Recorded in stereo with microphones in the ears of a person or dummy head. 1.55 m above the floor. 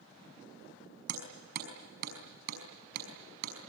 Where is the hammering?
70° right (ahead or behind), 5.5 m.